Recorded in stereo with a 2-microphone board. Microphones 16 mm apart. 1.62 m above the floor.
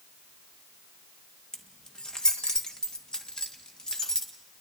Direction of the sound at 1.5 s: 40° left (ahead or behind).